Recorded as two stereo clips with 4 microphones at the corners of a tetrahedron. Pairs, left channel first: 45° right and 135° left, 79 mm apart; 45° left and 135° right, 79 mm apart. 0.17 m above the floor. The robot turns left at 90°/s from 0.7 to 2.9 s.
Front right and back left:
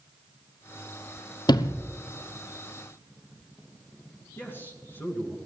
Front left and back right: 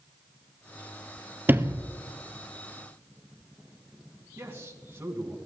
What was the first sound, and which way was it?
A sliding door, 70° right.